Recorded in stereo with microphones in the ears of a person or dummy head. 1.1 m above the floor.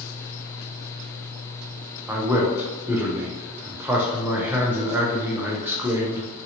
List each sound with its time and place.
2.1 s a man speaking: 5° right (ahead or behind), 0.6 m